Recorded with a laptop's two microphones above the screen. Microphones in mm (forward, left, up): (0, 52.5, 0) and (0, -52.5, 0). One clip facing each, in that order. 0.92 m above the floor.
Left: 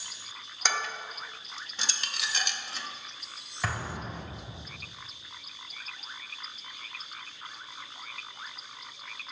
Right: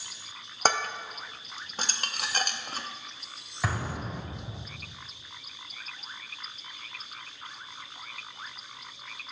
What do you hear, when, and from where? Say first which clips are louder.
0.7 s dishes clattering: right 5 dB; 45° right (ahead or behind), 0.6 m
3.6 s an explosion: right 2 dB; 5° right (ahead or behind), 2.0 m